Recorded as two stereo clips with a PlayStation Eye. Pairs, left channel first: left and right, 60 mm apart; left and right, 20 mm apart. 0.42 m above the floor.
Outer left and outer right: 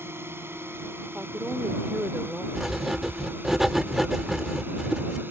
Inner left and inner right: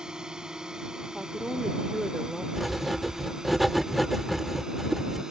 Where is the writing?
5° right (ahead or behind).